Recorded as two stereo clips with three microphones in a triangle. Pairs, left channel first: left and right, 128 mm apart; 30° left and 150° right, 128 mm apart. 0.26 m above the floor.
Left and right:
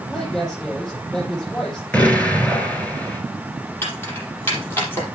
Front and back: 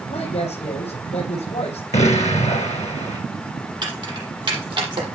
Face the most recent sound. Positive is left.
turn(degrees=160)